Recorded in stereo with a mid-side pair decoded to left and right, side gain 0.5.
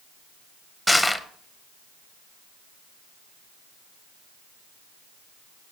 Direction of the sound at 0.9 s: 5° left.